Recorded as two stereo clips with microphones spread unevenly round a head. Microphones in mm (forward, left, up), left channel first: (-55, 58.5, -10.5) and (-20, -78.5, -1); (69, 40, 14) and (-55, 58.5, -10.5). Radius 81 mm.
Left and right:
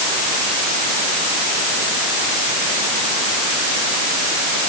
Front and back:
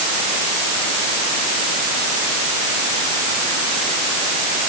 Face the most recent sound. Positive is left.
No sound to turn to.